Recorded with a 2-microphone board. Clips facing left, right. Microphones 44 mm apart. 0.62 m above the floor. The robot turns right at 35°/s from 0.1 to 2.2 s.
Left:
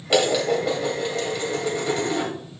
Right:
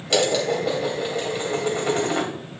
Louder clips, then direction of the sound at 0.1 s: Left 1 dB; 160° left.